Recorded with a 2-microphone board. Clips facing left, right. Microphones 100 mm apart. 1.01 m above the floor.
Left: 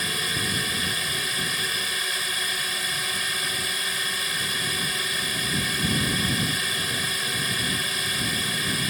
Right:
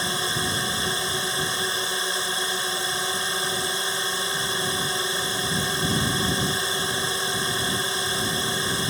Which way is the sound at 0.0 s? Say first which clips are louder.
Right 3 dB; 30° right (ahead or behind).